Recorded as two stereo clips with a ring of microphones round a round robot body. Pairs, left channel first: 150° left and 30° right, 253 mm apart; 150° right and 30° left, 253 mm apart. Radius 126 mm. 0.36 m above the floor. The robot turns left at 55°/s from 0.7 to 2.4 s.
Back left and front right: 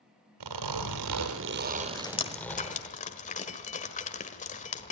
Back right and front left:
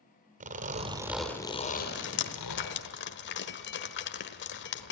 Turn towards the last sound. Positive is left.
turn(degrees=-160)